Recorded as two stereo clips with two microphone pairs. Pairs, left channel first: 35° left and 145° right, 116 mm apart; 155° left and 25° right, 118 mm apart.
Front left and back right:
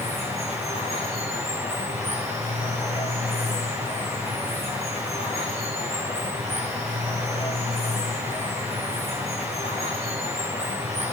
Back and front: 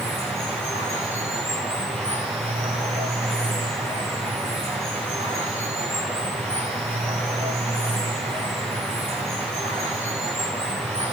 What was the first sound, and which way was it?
Running water, 10° left.